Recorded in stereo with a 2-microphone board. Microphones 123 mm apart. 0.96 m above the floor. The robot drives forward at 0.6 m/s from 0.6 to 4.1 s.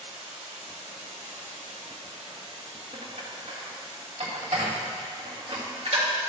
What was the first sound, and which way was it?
Running water, 80° right.